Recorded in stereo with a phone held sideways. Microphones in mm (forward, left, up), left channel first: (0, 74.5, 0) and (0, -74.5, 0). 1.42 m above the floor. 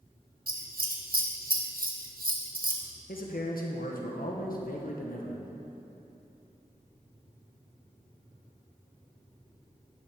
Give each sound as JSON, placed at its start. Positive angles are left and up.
{"t": 0.5, "sound": "scissors", "side_deg": -75, "distance_m": 1.2}
{"t": 3.1, "sound": "a man speaking", "side_deg": 75, "distance_m": 1.4}